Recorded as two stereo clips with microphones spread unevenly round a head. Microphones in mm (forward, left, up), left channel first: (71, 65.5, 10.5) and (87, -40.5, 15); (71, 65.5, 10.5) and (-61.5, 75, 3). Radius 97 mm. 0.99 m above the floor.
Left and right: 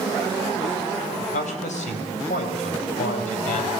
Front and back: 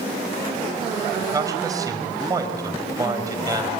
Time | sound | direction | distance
1.2 | a man speaking | 115° left | 4.5 m